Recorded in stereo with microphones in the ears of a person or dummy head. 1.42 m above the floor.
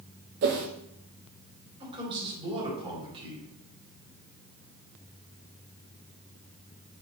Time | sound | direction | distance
0.4 | a whoosh | 40° right (ahead or behind) | 0.7 m
1.8 | a man speaking | 30° right (ahead or behind) | 3 m